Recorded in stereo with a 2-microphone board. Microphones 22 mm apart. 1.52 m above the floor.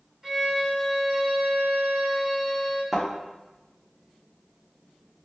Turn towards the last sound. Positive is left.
turn(degrees=0)  # may be behind; listen again after turning